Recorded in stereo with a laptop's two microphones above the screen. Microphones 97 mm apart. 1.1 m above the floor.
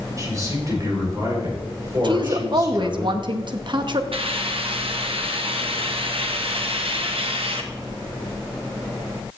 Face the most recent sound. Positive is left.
turn(degrees=-70)  # may be behind; listen again after turning